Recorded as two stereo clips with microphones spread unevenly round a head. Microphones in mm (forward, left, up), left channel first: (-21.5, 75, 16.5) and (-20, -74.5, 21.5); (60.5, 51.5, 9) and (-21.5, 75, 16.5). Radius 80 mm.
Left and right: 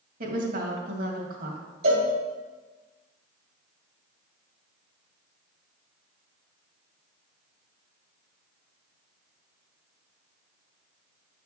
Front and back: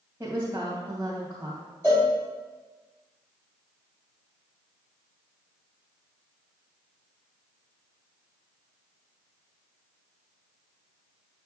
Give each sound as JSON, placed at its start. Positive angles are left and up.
{"t": 0.2, "sound": "a woman speaking", "azimuth_deg": -120, "distance_m": 2.0}
{"t": 1.8, "sound": "a cowbell", "azimuth_deg": -95, "distance_m": 2.0}